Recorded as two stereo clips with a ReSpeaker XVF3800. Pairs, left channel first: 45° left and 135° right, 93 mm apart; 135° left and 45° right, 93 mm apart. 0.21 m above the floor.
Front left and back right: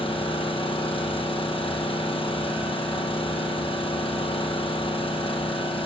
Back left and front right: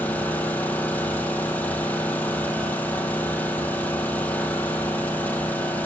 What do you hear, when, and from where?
0.0 s an engine running: 65° left, 4 m